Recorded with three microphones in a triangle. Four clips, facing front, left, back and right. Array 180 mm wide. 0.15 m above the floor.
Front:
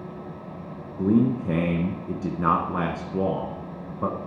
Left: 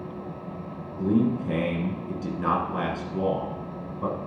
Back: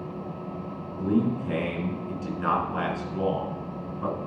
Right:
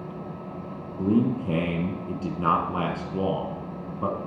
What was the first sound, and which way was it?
A man speaking, 20° right.